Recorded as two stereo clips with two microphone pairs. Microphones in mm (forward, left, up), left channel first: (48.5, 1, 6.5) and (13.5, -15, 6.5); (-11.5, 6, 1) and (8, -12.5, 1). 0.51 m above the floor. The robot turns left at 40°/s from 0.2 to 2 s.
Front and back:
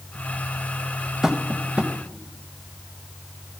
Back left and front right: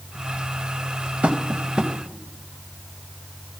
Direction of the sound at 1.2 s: 75° right.